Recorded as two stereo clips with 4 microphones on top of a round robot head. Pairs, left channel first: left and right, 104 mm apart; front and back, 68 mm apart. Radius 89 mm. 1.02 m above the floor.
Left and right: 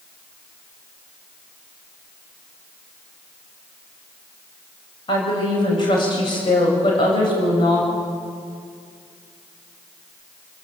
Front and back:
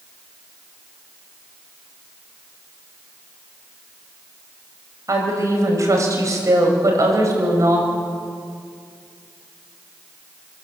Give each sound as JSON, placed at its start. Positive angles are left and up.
{"t": 5.1, "sound": "a woman speaking", "azimuth_deg": 140, "distance_m": 6.0}